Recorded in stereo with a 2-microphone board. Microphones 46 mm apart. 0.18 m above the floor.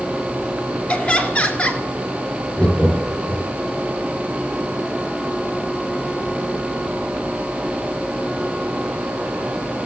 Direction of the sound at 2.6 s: 20° left (ahead or behind).